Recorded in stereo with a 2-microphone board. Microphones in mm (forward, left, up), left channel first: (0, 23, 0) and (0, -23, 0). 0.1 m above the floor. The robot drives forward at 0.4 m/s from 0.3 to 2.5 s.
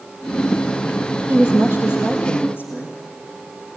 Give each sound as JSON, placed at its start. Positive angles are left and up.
{"t": 1.3, "sound": "a woman speaking", "side_deg": -50, "distance_m": 2.5}